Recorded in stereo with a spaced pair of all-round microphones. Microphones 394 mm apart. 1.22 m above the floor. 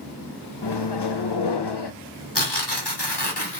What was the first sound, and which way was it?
A microwave, 85° left.